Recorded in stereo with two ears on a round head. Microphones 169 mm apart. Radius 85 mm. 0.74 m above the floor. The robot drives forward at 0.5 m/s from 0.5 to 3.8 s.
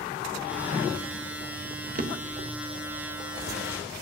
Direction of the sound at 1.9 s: 40° right (ahead or behind).